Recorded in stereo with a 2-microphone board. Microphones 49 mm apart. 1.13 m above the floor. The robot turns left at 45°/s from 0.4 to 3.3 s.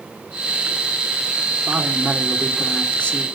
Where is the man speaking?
140° right, 3 m; by 3.2 s 150° left, 3 m.